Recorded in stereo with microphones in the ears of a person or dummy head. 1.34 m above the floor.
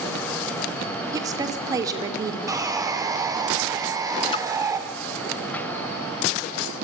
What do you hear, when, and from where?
1.1 s a woman speaking: 20° right (ahead or behind), 4 m
2.5 s sawing: 20° right (ahead or behind), 2.5 m
4.3 s a splash: 30° left (ahead or behind), 1.8 m